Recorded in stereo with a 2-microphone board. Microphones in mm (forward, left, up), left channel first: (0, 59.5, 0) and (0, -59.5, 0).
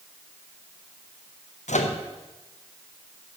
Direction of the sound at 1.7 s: 80° left.